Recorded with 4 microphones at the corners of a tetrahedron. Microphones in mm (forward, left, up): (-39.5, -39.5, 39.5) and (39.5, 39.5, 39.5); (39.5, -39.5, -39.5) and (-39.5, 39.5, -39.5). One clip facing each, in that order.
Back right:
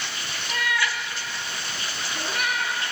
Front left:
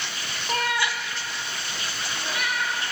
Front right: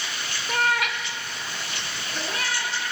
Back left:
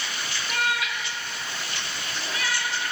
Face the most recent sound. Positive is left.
turn(degrees=-100)